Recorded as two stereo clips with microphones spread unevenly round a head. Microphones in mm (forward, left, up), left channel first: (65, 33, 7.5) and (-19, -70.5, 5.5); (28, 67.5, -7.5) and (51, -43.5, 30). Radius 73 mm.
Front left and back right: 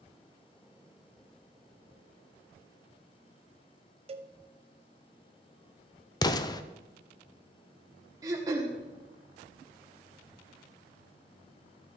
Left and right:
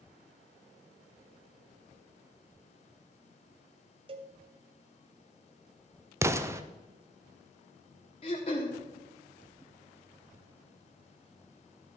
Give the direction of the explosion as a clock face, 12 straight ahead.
12 o'clock.